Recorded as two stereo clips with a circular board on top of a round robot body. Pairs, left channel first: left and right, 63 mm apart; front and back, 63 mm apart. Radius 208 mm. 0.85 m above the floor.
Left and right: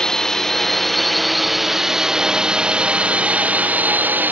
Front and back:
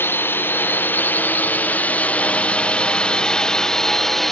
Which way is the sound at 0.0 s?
15° left.